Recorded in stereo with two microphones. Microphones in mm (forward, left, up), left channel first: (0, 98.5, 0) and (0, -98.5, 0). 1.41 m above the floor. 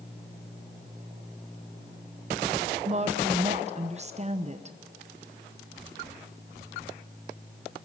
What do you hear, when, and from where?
2.9 s a woman speaking: 35° right (ahead or behind), 1.1 m